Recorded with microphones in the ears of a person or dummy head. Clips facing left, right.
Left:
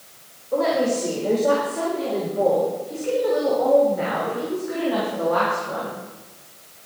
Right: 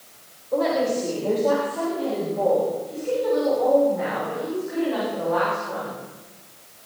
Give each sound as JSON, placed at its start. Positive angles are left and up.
{"t": 0.5, "sound": "a woman speaking", "side_deg": 5, "distance_m": 3.5}